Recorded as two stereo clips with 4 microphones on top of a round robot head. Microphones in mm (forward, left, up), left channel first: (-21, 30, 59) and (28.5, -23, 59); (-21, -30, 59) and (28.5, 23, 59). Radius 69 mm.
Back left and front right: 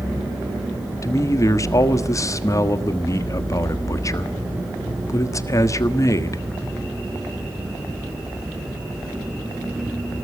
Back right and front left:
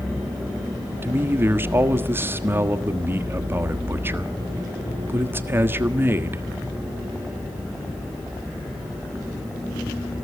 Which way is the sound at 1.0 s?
100° left.